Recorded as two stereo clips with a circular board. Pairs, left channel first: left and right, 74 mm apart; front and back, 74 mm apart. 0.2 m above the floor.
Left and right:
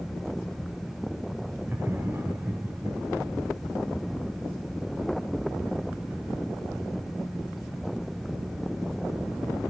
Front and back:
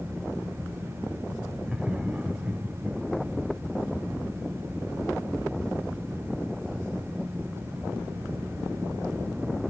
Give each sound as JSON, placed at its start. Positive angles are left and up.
{"t": 1.6, "sound": "laughter", "azimuth_deg": -105, "distance_m": 1.5}